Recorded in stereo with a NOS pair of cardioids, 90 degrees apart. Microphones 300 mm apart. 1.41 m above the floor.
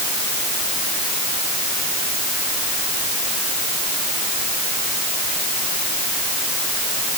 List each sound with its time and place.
Only background noise.